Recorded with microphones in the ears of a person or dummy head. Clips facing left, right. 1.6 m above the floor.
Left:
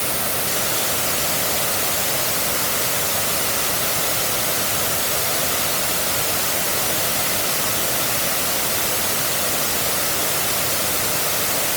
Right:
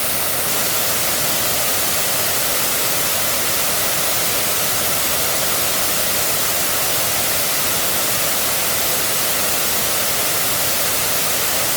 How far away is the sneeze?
No sneeze in this recording.